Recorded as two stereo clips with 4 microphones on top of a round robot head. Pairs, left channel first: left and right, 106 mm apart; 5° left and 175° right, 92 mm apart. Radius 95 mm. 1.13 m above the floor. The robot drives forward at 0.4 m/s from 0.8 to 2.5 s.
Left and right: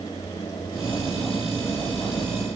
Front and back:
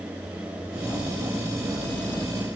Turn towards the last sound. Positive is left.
No sound to turn to.